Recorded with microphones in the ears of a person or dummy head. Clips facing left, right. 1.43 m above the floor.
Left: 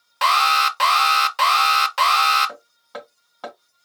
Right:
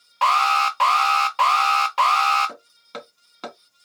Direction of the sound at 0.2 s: 20° left (ahead or behind).